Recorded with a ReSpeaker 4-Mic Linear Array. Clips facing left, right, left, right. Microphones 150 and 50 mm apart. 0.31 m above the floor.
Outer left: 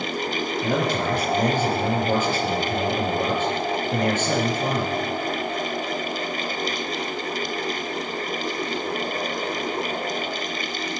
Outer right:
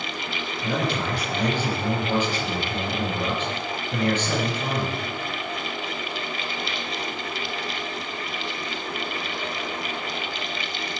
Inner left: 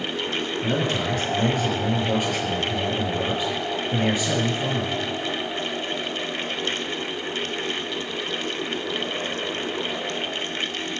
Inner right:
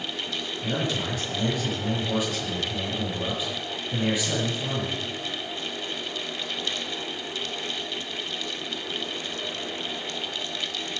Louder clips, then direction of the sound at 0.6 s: Outer left 2 dB, inner left 3 dB; 50° left (ahead or behind).